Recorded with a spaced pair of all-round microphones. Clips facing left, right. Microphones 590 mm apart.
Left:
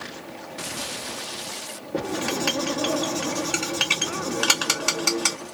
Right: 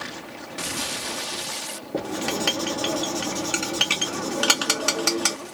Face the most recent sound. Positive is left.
turn(degrees=-5)  # may be behind; listen again after turning